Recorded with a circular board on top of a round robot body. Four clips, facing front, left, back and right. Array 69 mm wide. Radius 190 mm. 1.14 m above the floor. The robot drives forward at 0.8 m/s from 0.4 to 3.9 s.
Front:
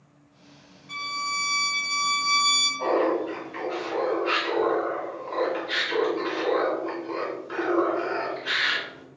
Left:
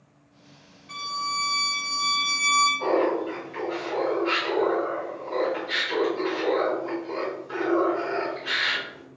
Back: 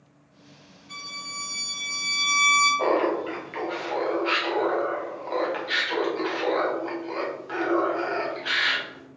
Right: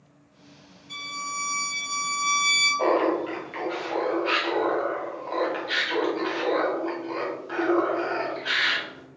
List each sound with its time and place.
0.9 s a violin: 55° left, 1.0 m; by 2.7 s 140° left, 1.2 m
2.8 s laughter: 130° right, 1.1 m; by 9.0 s 155° right, 1.8 m